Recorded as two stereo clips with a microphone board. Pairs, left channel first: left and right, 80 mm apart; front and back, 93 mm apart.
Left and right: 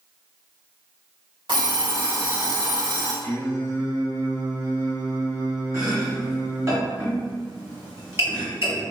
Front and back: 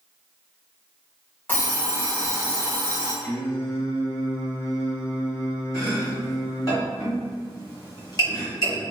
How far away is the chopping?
About 1.7 m.